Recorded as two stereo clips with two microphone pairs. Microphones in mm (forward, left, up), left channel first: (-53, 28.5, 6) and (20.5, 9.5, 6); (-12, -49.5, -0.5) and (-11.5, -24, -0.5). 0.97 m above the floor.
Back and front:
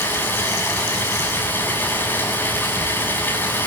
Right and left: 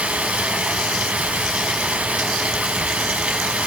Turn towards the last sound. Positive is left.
turn(degrees=105)